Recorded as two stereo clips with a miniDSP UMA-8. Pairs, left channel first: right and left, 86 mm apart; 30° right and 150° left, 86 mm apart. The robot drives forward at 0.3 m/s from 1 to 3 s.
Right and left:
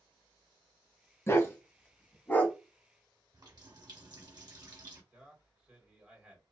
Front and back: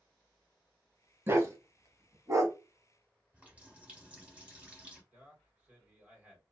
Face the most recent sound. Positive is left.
turn(degrees=130)